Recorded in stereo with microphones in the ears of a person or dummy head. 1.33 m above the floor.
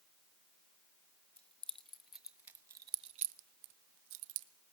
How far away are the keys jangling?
About 1.8 m.